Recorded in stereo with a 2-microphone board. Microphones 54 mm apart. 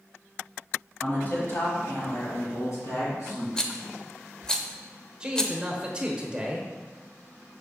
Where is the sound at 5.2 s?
20° right (ahead or behind), 0.9 m.